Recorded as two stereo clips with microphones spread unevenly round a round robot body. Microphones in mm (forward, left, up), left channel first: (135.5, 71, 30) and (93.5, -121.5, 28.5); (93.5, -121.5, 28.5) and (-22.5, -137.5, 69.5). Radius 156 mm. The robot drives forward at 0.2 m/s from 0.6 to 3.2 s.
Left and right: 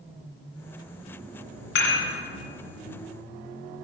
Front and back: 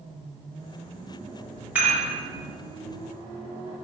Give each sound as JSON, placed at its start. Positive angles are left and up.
{"t": 1.8, "sound": "dishes clattering", "azimuth_deg": 100, "distance_m": 2.5}